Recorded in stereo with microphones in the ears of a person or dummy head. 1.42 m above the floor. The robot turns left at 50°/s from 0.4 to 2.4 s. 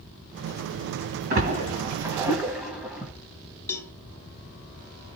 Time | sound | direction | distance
1.3 | a splash | 40° right (ahead or behind) | 1.6 m
3.7 | a cowbell | 15° left (ahead or behind) | 0.8 m